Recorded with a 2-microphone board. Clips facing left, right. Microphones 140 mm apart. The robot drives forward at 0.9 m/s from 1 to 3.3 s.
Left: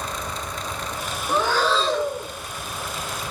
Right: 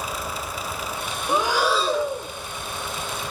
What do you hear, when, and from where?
1.3 s breathing: 15° right (ahead or behind), 1.0 m; by 2.3 s 5° right (ahead or behind), 1.8 m